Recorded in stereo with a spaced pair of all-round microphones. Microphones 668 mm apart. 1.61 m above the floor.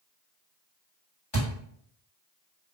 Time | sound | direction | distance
1.3 | a thud | 40° left (ahead or behind) | 1.5 m